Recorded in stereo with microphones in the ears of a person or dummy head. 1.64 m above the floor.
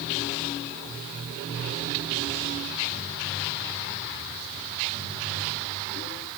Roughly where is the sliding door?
No sliding door in this recording.